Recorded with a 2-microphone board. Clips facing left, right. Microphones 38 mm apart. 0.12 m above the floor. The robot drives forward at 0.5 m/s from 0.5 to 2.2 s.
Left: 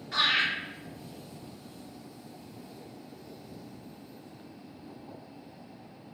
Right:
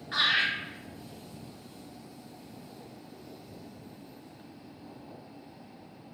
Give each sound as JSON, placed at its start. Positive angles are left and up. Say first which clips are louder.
{"t": 0.1, "sound": "laughter", "louder": "even", "side_deg": -30, "distance_m": 1.8}